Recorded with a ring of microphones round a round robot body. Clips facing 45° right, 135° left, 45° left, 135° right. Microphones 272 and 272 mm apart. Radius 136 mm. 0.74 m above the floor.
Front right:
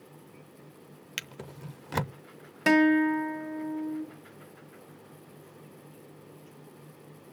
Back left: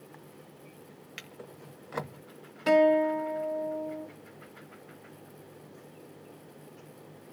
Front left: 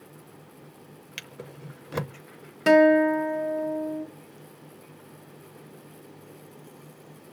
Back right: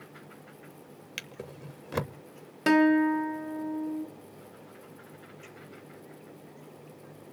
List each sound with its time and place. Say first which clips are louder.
1.2 s a drawer: front right 3 dB, even; 45° right, 0.6 m
2.7 s a guitar: front right 2 dB, front left 3 dB; 45° right, 1.8 m